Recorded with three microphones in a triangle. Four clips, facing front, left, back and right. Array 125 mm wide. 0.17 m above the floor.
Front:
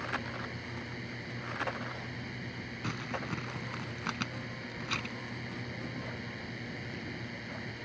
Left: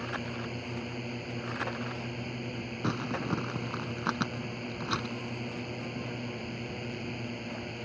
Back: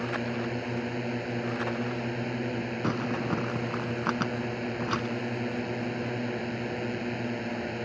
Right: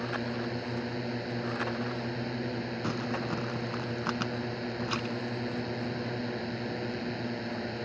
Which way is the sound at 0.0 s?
160° right.